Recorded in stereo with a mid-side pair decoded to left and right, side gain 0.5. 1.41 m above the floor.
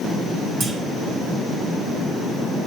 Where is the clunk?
65° right, 2 m.